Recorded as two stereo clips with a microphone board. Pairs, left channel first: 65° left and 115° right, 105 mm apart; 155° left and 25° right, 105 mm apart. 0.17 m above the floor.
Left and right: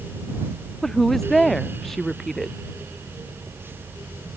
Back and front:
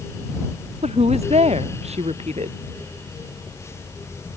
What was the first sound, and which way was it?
A woman speaking, 20° right.